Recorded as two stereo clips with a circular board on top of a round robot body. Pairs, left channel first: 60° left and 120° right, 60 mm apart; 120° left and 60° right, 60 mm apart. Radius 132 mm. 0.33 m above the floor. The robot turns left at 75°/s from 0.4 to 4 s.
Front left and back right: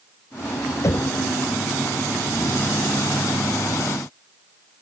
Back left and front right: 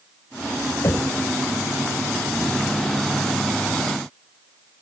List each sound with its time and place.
0.8 s knocking: 90° left; by 1.2 s 60° left